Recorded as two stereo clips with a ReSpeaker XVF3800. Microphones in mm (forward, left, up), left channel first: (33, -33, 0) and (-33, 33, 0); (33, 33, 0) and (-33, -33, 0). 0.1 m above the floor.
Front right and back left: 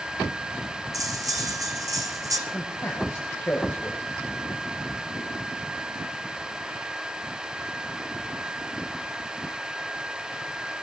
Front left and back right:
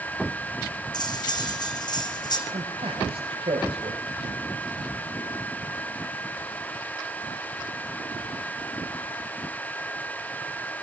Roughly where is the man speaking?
Right.